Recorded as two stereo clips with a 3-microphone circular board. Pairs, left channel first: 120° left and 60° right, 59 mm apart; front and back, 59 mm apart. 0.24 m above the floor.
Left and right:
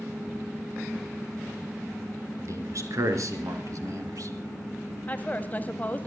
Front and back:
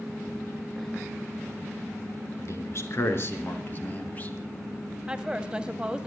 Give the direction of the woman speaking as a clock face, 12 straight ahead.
8 o'clock.